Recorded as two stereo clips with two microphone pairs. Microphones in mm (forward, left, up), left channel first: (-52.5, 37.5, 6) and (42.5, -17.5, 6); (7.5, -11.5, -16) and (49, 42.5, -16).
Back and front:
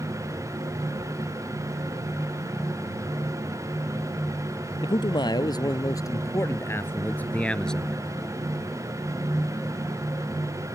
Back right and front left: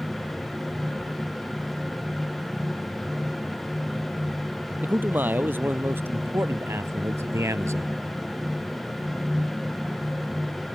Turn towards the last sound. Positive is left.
turn(degrees=65)